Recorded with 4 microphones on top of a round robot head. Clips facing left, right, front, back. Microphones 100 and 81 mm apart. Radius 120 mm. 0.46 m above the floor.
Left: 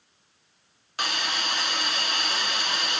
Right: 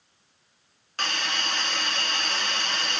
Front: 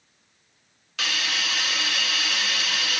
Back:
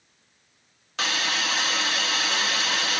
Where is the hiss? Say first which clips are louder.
Even, back 2 dB; 165° left, 0.6 m.